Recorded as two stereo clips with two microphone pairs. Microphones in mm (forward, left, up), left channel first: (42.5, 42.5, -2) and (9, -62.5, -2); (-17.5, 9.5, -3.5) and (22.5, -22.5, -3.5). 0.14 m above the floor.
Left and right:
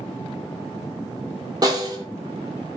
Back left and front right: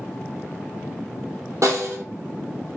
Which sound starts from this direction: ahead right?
A snare drum, at 1.6 s.